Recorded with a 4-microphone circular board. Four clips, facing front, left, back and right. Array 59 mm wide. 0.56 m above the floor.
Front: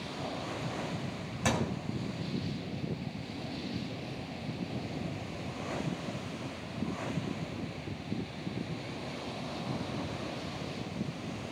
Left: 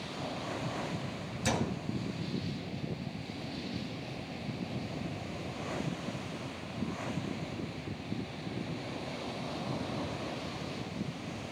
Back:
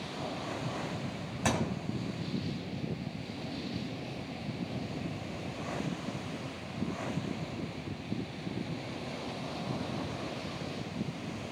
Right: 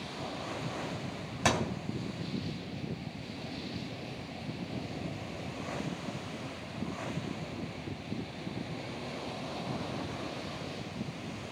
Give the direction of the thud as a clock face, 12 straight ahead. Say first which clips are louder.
Right 3 dB, even; 3 o'clock.